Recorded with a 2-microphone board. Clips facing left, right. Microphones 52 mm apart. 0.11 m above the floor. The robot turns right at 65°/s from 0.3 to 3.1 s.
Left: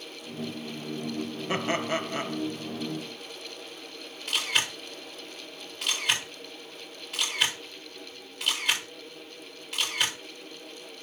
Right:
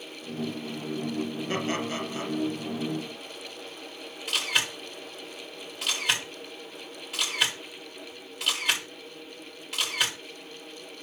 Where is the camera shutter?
5° right (ahead or behind), 7 m.